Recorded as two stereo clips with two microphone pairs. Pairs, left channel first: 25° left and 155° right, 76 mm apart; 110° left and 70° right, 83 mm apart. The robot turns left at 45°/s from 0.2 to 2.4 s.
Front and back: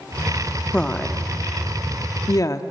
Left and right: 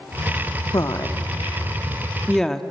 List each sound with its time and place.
0.7 s a woman speaking: 100° left, 0.9 m; by 2.6 s 25° left, 0.9 m